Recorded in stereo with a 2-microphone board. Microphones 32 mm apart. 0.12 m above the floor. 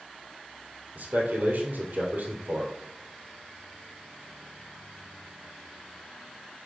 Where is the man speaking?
70° right (ahead or behind), 3 m.